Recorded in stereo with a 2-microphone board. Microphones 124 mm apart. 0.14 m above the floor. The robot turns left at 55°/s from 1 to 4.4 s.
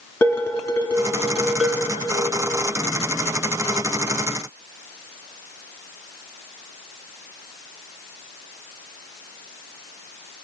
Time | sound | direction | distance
0.2 | dishes clattering | 25° left | 1.2 m